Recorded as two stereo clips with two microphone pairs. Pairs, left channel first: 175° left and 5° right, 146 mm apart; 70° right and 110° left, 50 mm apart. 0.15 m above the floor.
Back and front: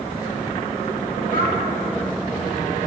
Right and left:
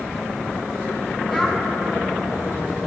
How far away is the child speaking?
About 3.5 m.